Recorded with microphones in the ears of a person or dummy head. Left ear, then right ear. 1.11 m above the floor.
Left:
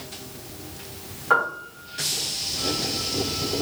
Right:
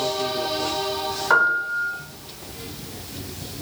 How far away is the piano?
About 1.0 m.